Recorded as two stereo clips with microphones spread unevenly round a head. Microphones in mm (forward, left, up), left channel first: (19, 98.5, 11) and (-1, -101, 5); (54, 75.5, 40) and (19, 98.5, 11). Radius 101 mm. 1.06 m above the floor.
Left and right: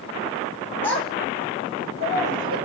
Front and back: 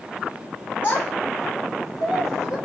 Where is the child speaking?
5° left, 1.2 m; by 2.6 s 50° right, 1.5 m.